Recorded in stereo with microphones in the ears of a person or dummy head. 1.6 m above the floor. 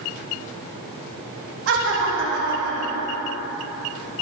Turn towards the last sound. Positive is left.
turn(degrees=-60)  # may be behind; listen again after turning